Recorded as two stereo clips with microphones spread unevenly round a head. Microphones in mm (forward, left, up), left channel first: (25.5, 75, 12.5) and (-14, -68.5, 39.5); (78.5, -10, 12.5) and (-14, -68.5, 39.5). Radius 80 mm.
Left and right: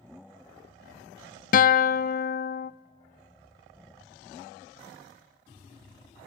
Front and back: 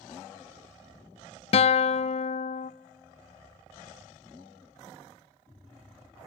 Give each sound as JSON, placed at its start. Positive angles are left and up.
{"t": 1.5, "sound": "a guitar", "azimuth_deg": 55, "distance_m": 0.5}